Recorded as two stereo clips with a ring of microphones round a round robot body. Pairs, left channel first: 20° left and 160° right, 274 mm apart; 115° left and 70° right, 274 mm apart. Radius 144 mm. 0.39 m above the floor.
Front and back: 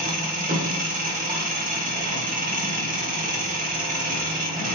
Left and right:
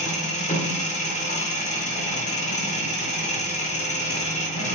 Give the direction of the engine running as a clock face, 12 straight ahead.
7 o'clock.